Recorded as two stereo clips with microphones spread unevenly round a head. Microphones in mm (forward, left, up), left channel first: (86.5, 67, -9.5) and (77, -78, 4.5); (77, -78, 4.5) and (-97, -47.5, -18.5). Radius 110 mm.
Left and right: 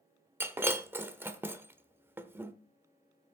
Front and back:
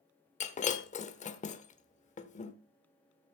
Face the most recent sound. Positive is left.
turn(degrees=-30)